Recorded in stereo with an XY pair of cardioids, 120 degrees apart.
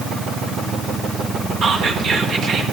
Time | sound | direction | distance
1.6 | whispering | 55° right | 1.4 m